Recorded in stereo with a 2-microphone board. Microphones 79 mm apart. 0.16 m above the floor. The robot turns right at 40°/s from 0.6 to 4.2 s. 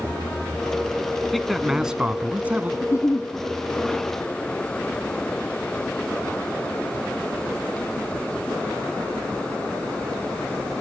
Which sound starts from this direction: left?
A giggle, at 2.8 s.